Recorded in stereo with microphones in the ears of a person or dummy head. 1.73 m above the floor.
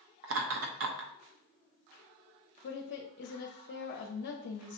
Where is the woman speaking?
60° left (ahead or behind), 0.6 m.